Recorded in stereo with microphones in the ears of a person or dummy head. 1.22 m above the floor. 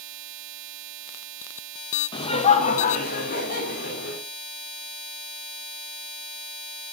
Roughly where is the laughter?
Left.